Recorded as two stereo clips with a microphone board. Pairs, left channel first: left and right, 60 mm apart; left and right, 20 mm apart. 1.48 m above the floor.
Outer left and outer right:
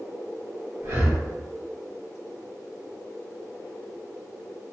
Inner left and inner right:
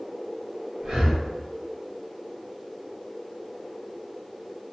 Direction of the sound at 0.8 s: 45° right (ahead or behind).